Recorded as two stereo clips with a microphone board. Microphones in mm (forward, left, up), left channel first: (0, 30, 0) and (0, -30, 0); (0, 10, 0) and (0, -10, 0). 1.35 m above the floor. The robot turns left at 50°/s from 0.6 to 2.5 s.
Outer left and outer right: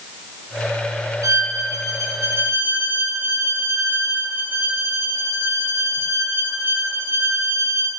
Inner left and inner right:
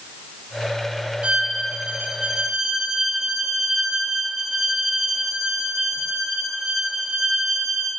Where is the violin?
75° right, 0.7 m; by 7.9 s 140° right, 0.7 m.